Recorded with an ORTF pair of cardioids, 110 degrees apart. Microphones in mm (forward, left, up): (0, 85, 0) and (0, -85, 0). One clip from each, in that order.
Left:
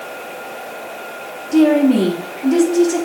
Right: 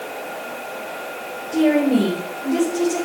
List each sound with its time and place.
1.5 s a woman speaking: 65° left, 3.5 m